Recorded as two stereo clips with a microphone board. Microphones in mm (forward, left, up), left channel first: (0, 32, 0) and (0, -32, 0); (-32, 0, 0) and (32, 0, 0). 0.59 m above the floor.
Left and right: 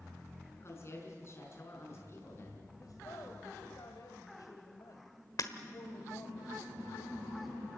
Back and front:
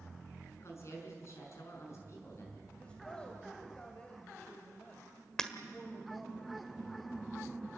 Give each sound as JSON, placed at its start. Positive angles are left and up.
{"t": 0.6, "sound": "a woman speaking", "azimuth_deg": 135, "distance_m": 6.0}
{"t": 2.8, "sound": "a woman speaking", "azimuth_deg": 105, "distance_m": 2.5}
{"t": 5.4, "sound": "breaking glass", "azimuth_deg": 100, "distance_m": 1.5}